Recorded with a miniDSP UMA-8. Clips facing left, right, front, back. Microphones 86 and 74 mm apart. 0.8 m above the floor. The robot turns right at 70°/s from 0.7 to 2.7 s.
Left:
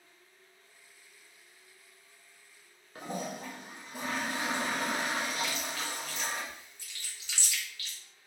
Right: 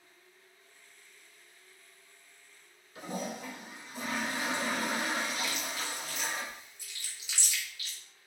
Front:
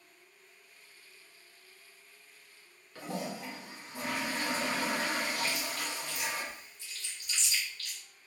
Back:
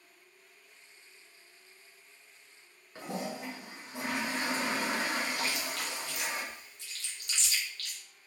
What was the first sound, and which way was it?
A toilet flushing, 120° left.